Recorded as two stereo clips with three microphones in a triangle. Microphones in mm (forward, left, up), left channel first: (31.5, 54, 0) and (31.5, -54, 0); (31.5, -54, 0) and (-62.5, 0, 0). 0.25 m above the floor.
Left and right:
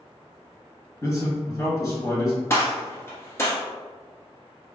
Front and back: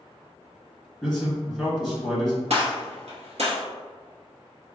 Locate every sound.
1.0 s a man speaking: 65° left, 1.5 m
2.5 s a gunshot: 155° left, 1.1 m